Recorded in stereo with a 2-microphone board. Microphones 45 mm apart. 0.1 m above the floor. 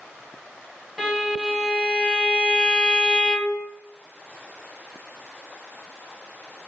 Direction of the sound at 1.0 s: 5° right (ahead or behind).